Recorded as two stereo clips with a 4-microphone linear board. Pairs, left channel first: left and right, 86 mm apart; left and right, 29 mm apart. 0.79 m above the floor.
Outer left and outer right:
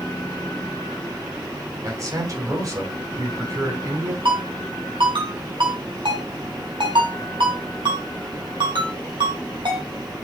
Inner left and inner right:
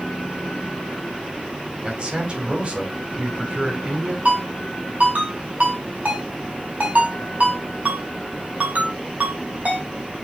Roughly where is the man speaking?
Right.